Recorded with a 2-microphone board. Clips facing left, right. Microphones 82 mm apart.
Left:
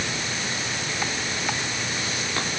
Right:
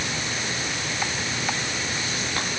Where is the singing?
No singing in this recording.